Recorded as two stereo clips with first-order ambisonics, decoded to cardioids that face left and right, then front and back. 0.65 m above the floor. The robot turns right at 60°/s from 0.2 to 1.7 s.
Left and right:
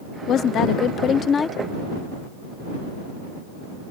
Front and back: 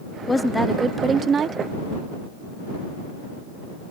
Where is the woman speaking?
70° left; by 1.6 s 150° left.